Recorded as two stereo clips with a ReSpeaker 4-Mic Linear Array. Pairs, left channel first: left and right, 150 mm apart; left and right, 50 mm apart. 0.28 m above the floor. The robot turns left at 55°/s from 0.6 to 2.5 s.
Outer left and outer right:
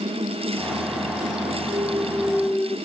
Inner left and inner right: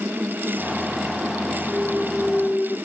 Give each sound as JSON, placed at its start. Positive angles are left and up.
{"t": 1.7, "sound": "a clunk", "azimuth_deg": -140}